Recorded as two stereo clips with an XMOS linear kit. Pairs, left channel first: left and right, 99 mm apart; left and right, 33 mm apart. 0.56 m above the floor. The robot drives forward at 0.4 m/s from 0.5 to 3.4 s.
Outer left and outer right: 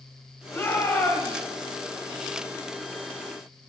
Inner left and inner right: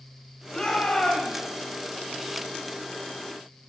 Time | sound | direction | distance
0.5 | a shout | 25° left (ahead or behind) | 2 m